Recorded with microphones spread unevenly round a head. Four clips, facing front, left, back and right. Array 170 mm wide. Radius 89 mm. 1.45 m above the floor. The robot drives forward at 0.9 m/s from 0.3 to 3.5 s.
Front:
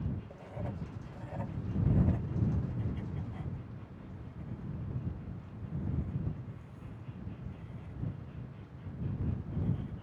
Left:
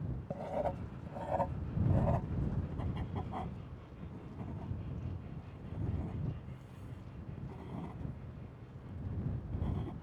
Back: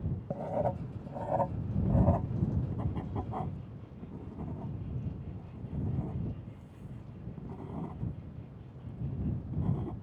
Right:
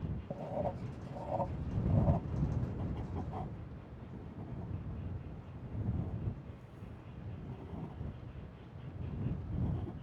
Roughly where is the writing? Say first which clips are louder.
Left 2 dB, back 11 dB; behind.